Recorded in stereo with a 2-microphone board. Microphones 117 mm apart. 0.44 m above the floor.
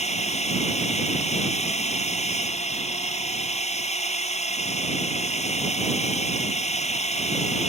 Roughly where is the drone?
Left.